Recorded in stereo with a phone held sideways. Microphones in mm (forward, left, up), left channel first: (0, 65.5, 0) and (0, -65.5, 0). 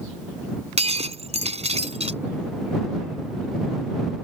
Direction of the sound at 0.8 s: 55° right (ahead or behind).